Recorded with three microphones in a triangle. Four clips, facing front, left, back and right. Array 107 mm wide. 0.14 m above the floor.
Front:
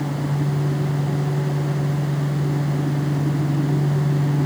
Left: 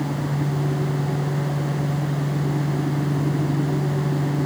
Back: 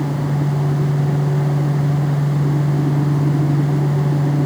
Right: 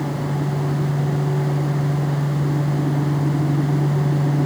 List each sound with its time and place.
Only background noise.